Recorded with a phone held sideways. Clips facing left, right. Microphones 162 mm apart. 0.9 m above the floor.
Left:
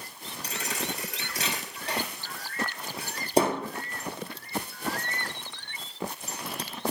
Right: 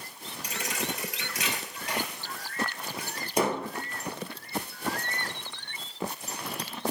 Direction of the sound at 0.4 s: 35° left (ahead or behind).